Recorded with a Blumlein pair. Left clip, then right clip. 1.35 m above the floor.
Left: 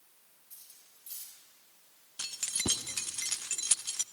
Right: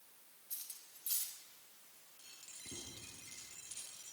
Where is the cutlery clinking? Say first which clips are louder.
Right 5 dB; 70° right, 4.5 m.